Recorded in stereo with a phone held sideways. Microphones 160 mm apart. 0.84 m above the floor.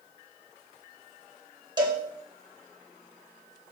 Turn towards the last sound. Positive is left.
turn(degrees=-25)  # may be behind; listen again after turning